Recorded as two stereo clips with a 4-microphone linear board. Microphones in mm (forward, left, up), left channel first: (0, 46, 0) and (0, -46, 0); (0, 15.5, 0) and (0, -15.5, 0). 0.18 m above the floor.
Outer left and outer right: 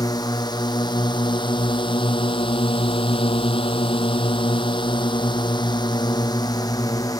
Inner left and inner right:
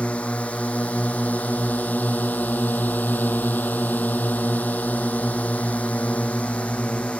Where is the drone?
45° left (ahead or behind); by 7.2 s 40° left (ahead or behind).